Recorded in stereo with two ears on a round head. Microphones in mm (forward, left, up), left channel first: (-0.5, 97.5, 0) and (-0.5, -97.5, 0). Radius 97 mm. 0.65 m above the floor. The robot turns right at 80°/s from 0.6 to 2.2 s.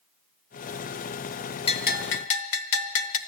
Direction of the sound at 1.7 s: 25° left.